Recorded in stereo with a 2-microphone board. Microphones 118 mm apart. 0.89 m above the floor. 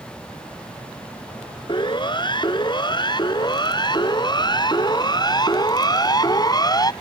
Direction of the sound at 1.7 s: 40° left (ahead or behind).